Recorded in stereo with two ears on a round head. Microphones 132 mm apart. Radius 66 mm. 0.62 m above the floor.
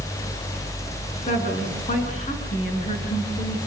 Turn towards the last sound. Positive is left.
turn(degrees=45)  # may be behind; listen again after turning